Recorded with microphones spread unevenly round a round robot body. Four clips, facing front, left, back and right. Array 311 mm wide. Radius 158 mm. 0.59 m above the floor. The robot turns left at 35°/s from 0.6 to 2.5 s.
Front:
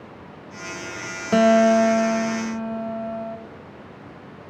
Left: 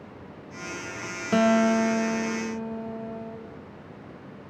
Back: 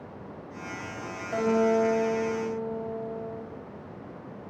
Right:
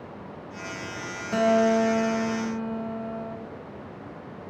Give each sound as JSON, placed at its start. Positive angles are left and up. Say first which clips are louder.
{"t": 1.3, "sound": "a guitar", "louder": "even, front 8 dB", "azimuth_deg": 30, "distance_m": 3.0}